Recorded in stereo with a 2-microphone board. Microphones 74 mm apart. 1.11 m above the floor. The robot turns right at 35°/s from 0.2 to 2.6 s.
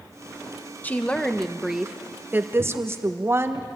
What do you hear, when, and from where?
0.8 s a woman speaking: 155° left, 1.1 m; by 3.7 s 140° right, 1.1 m